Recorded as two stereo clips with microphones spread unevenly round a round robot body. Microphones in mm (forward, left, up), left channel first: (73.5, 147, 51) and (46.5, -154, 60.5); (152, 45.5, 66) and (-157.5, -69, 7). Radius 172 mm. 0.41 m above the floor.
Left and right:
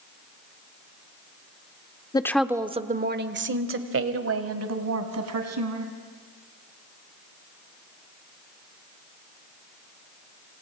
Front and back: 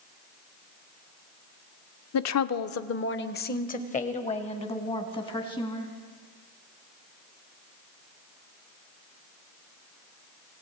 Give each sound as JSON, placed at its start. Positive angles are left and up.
{"t": 2.1, "sound": "a woman speaking", "azimuth_deg": 20, "distance_m": 0.9}